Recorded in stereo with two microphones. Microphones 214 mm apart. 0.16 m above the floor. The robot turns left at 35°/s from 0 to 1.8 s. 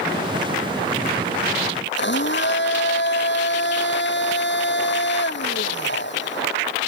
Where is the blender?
60° left (ahead or behind).